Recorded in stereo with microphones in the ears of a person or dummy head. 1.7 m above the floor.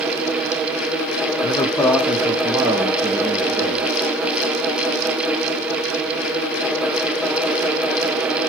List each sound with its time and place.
1.4 s a man speaking: 25° left (ahead or behind), 0.7 m; by 3.9 s 50° right (ahead or behind), 1.6 m